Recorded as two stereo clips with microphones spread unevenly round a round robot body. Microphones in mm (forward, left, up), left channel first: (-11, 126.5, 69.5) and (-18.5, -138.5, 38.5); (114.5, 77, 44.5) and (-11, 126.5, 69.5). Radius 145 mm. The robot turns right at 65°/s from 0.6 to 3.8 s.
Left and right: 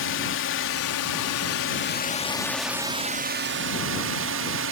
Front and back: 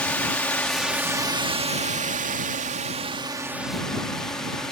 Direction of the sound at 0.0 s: 50° left.